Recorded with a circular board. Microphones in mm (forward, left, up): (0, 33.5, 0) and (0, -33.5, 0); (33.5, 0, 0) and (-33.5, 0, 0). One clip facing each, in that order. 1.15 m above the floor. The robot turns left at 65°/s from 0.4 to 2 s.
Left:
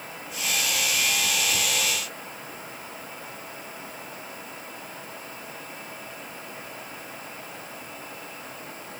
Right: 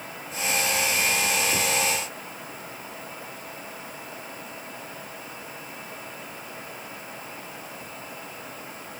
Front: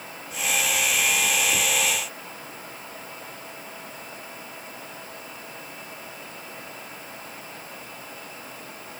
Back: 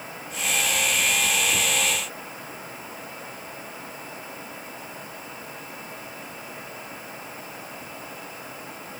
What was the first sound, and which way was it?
Only background noise.